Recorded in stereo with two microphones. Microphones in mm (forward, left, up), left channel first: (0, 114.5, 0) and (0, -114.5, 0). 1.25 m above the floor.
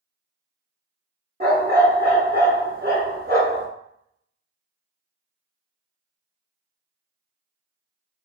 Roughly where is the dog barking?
Right.